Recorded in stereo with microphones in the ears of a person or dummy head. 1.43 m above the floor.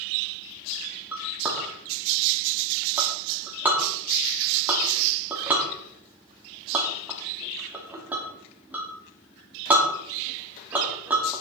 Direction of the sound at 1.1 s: 10° right (ahead or behind).